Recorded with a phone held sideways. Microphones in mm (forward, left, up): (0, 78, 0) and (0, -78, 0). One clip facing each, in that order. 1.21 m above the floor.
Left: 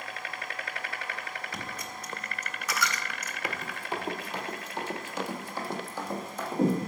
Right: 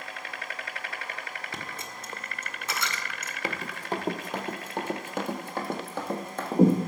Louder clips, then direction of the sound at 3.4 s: Right 3 dB; 30° right (ahead or behind).